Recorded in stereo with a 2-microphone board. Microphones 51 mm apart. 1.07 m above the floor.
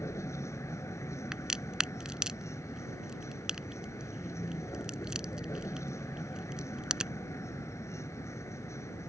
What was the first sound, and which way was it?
A vehicle, 80° left.